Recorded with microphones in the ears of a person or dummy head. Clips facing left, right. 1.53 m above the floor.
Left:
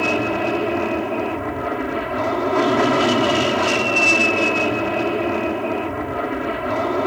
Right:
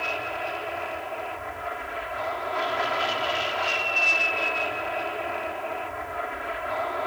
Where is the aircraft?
60° left (ahead or behind); by 7.1 s 55° left (ahead or behind).